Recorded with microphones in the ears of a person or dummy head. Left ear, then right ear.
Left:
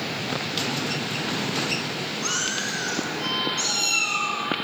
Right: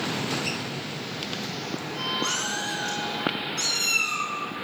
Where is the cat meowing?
10° right (ahead or behind), 6.5 m; by 4.4 s 15° right (ahead or behind), 7.5 m.